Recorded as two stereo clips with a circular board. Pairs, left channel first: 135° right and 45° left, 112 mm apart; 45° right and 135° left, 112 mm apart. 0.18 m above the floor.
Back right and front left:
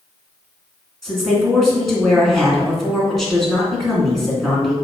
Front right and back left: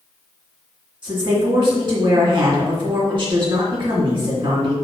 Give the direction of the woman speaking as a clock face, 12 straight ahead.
7 o'clock.